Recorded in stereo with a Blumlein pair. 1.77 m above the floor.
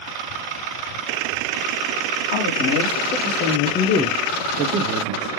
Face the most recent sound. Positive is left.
turn(degrees=-60)